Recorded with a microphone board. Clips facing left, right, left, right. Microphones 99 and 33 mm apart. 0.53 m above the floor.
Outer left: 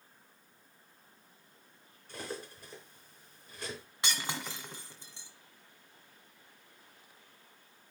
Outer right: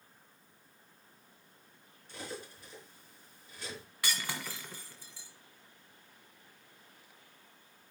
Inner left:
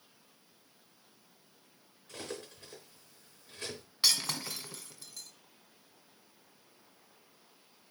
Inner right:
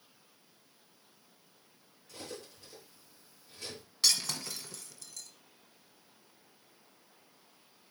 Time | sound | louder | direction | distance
2.1 | cutlery clinking | outer left 2 dB, inner left 3 dB | 45° left (ahead or behind) | 4.5 m
4.0 | breaking glass | outer left 1 dB, inner left 1 dB | 25° left (ahead or behind) | 1.4 m